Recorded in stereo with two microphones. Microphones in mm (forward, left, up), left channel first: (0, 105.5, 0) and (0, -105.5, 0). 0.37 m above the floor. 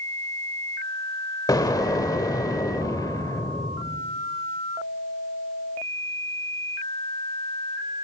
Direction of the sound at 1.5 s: 20° left (ahead or behind).